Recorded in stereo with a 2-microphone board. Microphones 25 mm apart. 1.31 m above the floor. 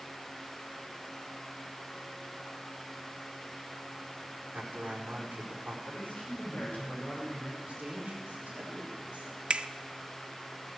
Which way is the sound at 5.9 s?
55° left (ahead or behind).